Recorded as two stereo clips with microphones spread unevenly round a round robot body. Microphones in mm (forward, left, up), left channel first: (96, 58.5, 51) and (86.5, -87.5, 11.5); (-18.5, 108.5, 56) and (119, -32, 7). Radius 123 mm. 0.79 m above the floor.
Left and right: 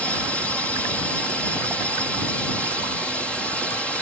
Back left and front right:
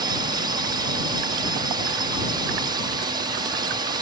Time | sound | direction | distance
0.0 | a drone | 10° right | ?